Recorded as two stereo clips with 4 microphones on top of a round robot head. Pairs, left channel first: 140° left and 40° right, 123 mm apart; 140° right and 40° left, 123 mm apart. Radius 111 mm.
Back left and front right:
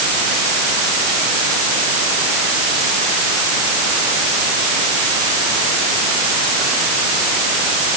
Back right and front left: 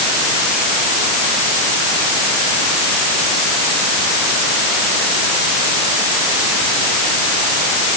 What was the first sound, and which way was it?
Only background noise.